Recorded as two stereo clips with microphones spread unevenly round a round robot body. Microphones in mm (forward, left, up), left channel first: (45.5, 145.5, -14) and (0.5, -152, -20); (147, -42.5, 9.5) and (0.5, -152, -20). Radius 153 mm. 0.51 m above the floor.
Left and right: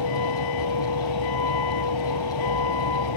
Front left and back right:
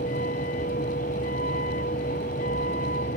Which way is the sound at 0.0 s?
100° left.